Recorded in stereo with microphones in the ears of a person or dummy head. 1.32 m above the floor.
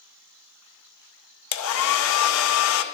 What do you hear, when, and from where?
1.5 s a hair dryer: 75° left (ahead or behind), 0.5 m